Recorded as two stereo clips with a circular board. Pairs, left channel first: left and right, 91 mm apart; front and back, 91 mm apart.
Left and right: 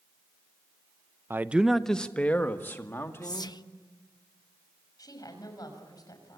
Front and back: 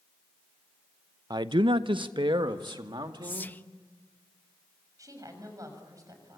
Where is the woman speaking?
130° left, 6 m.